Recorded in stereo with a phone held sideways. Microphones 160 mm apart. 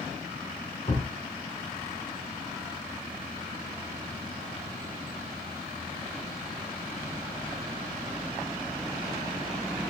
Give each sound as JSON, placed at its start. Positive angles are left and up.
{"t": 0.9, "sound": "a thud", "side_deg": 40, "distance_m": 2.0}